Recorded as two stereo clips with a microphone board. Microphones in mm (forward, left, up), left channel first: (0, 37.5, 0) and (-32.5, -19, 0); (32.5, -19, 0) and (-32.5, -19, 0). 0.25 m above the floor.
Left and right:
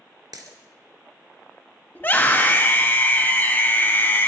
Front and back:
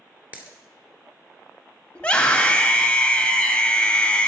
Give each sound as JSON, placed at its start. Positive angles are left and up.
{"t": 0.3, "sound": "a dropped coin", "azimuth_deg": -115, "distance_m": 2.0}
{"t": 1.9, "sound": "a scream", "azimuth_deg": 55, "distance_m": 1.5}